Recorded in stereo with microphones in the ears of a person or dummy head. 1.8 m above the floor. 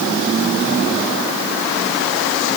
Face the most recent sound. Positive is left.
No sound to turn to.